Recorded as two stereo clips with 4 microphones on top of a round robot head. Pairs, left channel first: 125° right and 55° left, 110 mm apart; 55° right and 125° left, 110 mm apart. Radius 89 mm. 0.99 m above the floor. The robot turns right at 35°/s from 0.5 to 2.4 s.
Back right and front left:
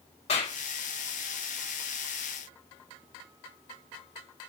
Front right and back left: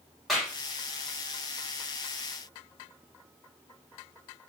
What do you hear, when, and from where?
0.3 s a clap: 150° right, 3 m; by 0.6 s 145° right, 3 m